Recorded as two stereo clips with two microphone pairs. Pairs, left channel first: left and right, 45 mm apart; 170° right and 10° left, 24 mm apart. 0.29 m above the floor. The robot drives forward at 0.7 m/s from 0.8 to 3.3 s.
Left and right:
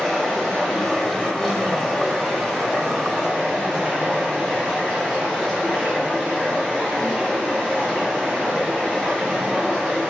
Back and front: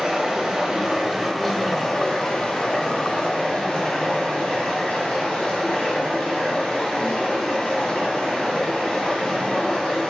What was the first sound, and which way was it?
Running water, 20° left.